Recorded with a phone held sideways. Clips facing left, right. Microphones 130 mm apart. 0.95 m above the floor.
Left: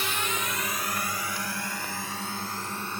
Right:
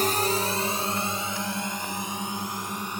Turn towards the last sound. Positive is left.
turn(degrees=-15)  # may be behind; listen again after turning